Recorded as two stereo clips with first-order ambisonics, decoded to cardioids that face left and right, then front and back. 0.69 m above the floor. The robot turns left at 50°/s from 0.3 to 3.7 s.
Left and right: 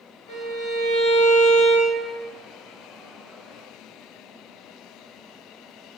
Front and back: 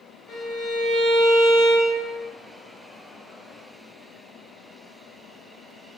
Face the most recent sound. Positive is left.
turn(degrees=-90)